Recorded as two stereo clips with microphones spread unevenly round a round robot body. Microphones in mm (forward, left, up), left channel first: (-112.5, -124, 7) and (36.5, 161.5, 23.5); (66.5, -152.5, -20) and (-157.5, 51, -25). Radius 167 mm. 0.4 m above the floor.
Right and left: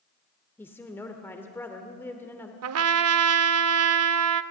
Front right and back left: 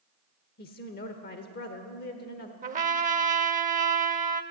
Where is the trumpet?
80° left, 0.6 m.